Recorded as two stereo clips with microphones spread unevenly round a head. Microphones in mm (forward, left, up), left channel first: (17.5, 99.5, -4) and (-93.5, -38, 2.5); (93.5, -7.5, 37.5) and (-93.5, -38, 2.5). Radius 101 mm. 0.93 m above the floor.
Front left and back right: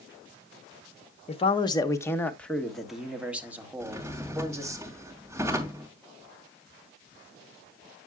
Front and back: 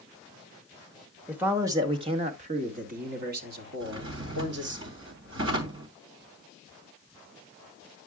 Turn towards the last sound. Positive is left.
turn(degrees=155)